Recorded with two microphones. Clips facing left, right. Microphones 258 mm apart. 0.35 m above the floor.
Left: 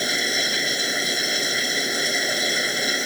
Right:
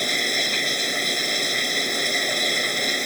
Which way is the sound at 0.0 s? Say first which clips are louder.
Left 1 dB; 5° left (ahead or behind).